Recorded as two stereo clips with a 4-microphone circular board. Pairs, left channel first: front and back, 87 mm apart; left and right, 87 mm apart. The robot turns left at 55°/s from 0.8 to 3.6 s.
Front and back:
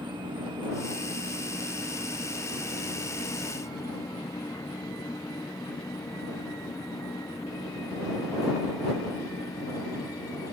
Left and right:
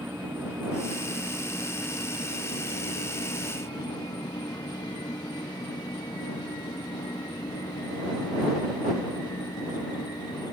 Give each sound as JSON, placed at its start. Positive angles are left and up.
{"t": 0.0, "sound": "an insect", "azimuth_deg": -155}